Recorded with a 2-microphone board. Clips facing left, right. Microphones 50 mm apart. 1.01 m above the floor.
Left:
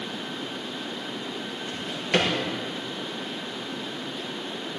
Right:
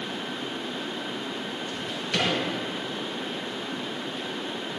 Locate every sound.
1.7 s a drawer: 45° left (ahead or behind), 5.5 m